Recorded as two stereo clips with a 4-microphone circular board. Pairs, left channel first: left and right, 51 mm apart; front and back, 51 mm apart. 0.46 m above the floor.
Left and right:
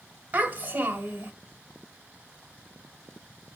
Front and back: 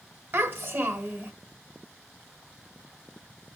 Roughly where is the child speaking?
Behind right.